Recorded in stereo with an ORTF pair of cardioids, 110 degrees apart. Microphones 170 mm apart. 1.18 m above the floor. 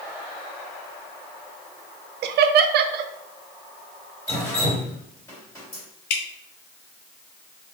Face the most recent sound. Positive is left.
turn(degrees=70)